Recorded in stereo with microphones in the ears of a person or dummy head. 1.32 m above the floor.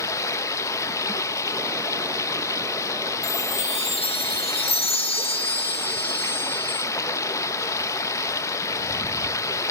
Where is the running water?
15° left (ahead or behind), 0.7 m.